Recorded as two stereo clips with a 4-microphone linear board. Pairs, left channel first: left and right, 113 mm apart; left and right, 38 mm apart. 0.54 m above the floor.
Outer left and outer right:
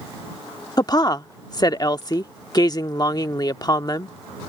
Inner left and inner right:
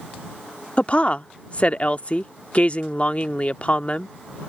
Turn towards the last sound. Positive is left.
turn(degrees=35)  # may be behind; listen again after turning